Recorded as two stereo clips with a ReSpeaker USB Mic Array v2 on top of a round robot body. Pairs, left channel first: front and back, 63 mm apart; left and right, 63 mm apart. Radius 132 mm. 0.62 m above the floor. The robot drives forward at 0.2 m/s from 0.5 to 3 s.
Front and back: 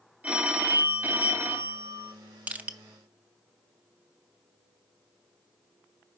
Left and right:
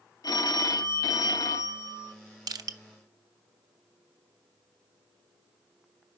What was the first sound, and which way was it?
A phone ringing, 110° left.